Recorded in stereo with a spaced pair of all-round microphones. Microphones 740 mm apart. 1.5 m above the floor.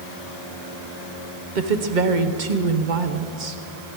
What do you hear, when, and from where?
1.6 s a woman speaking: 85° right, 1.1 m